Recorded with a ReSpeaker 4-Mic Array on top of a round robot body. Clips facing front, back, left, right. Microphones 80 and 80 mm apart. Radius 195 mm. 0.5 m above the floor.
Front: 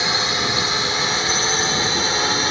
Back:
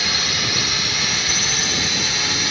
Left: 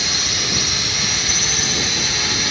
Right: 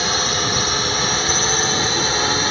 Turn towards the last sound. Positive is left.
turn(degrees=-45)